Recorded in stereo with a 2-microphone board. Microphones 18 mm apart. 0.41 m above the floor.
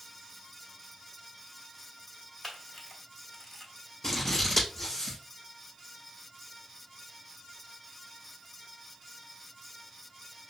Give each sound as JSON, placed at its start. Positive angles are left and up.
{"t": 2.4, "sound": "a camera shutter", "side_deg": 15, "distance_m": 1.7}
{"t": 4.0, "sound": "scissors", "side_deg": 25, "distance_m": 3.5}